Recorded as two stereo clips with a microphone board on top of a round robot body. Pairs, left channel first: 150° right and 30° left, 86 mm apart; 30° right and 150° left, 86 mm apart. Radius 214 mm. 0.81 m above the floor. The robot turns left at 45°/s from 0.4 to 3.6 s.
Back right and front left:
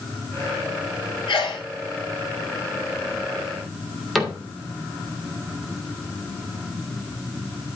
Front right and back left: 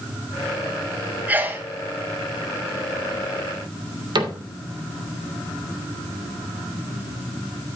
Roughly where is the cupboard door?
Behind left.